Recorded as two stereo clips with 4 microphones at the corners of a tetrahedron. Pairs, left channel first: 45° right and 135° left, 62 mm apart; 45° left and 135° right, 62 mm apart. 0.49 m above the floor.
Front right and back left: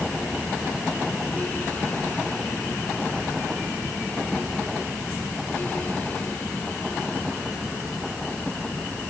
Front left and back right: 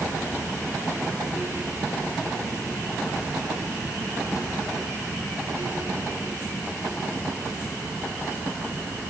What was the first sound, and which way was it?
Only background noise.